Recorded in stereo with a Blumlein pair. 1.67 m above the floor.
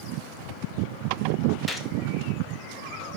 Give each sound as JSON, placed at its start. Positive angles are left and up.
{"t": 1.7, "sound": "a gunshot", "azimuth_deg": 5, "distance_m": 1.4}